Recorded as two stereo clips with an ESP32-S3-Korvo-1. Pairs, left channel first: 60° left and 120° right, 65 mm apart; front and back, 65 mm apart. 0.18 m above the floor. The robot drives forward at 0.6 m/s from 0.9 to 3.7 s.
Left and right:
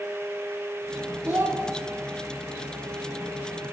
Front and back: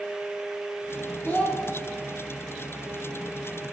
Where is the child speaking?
60° right, 3.5 m; by 1.6 s 65° right, 3.5 m.